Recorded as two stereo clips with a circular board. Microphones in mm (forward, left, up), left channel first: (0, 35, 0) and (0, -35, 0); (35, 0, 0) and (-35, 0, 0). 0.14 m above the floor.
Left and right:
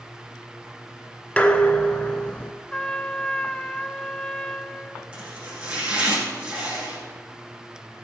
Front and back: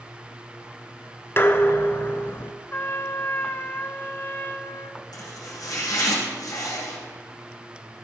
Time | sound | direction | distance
1.4 | dishes clattering | 30° left | 1.0 m
2.7 | a trumpet | 25° left | 0.5 m
5.1 | chopping | 15° right | 6 m